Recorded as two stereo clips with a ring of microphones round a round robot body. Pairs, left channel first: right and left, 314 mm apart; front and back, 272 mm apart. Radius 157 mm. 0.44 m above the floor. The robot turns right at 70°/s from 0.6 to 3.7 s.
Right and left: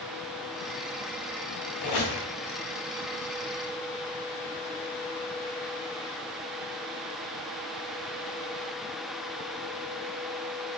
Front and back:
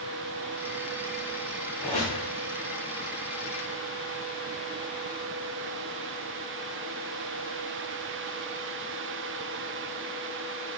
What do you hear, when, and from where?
1.8 s a squeak: 90° right, 1.4 m; by 2.2 s 60° right, 1.4 m